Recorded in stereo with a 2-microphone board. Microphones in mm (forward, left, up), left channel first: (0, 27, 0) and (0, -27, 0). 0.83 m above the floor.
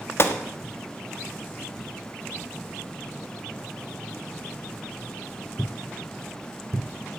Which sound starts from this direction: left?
A gunshot, at 0.2 s.